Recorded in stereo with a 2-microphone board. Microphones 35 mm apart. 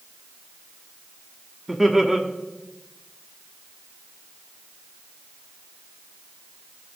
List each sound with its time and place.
1.7 s laughter: 10° right (ahead or behind), 1.2 m